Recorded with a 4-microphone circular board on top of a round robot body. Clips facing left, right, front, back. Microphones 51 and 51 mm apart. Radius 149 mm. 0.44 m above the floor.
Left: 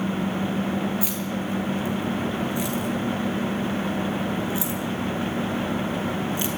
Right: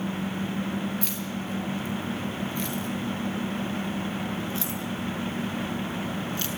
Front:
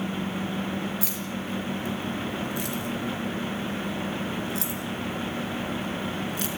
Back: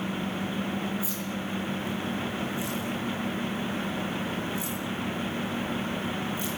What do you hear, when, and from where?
1.0 s keys jangling: 5° left, 8 m; by 6.5 s 20° left, 5.5 m